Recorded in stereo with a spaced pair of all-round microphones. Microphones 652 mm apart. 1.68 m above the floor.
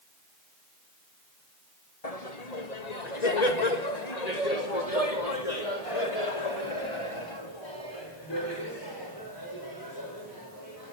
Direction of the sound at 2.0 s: 60° left (ahead or behind).